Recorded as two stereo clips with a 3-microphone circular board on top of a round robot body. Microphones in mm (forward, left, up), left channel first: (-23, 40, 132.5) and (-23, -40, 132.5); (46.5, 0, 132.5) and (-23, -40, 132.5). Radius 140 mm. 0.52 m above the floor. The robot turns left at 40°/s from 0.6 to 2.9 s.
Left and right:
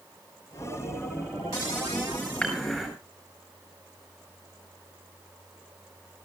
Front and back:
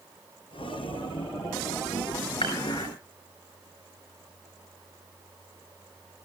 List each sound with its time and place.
2.4 s dishes clattering: 15° left, 7.5 m; by 2.9 s 5° right, 7.5 m